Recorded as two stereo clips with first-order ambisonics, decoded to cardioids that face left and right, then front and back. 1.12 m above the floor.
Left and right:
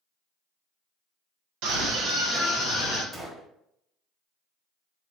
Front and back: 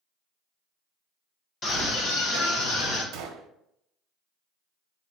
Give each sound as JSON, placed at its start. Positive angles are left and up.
{"t": 1.6, "sound": "a scream", "azimuth_deg": -65, "distance_m": 1.5}
{"t": 3.1, "sound": "a gunshot", "azimuth_deg": -175, "distance_m": 0.8}